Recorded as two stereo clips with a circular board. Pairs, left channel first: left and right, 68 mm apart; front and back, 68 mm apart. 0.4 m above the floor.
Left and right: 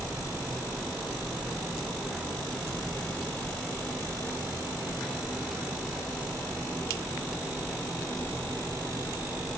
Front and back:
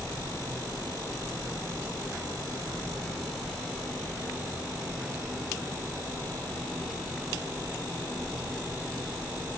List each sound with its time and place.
Only background noise.